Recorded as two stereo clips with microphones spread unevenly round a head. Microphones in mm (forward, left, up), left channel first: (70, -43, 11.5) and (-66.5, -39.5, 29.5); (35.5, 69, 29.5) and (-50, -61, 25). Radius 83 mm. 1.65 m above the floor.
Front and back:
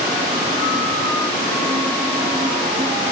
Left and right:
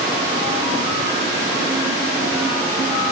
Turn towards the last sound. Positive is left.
No sound to turn to.